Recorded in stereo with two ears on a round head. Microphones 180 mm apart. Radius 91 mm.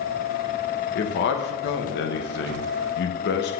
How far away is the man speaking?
About 0.8 m.